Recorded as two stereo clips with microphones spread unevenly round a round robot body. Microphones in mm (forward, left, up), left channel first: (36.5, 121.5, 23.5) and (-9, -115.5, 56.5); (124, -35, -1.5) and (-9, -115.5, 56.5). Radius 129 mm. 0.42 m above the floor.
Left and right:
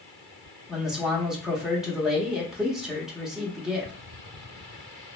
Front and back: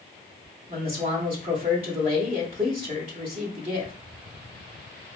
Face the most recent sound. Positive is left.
turn(degrees=155)